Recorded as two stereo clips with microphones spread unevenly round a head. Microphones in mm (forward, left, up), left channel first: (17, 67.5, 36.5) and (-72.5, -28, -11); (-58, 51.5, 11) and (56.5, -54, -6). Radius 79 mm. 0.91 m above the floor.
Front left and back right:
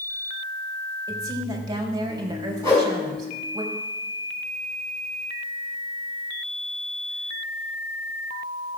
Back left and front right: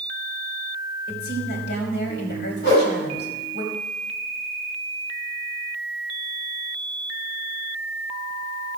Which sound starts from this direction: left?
A whoosh, at 2.6 s.